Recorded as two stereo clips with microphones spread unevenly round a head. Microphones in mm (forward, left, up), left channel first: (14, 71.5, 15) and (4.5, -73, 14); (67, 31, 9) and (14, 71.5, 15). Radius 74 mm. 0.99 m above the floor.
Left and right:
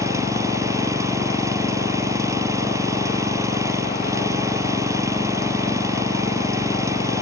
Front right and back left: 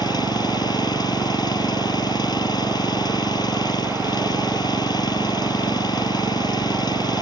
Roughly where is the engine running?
Ahead.